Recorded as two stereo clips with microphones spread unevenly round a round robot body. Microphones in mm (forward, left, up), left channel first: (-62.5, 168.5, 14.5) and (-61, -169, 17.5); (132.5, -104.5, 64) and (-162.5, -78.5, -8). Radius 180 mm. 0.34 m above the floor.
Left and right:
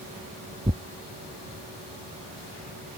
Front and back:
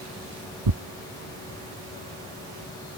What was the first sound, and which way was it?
Tearing paper, 165° right.